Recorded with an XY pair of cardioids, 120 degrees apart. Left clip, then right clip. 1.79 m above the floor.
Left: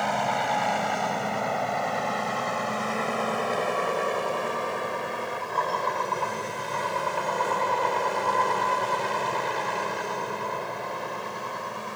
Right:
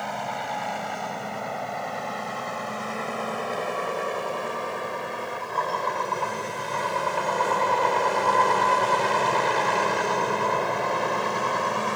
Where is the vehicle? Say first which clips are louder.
Left 5 dB; 25° left; by 12.0 s 50° right.